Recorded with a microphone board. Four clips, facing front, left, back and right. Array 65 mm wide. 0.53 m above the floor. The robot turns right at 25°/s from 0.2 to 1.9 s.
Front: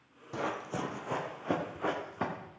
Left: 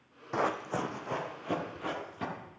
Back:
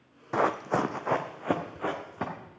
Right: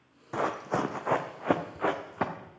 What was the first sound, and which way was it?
Running footsteps, 170° left.